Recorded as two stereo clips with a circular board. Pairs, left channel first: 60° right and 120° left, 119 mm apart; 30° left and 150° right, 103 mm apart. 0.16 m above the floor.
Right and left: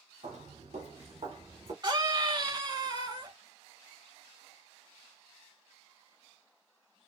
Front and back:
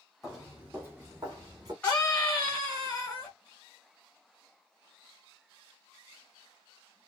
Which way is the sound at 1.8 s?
105° left.